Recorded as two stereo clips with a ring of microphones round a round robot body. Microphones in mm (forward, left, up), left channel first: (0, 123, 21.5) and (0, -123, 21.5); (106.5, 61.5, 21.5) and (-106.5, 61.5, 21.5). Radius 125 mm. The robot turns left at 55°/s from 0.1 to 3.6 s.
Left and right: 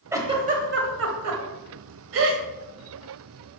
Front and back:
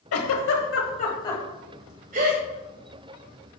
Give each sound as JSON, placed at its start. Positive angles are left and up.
{"t": 0.1, "sound": "a giggle", "azimuth_deg": -10, "distance_m": 1.6}